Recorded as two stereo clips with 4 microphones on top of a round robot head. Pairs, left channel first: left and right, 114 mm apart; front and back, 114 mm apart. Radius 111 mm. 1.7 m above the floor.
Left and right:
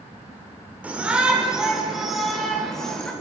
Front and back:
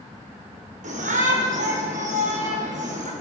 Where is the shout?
170° right, 7 m; by 3.1 s 175° left, 8.5 m.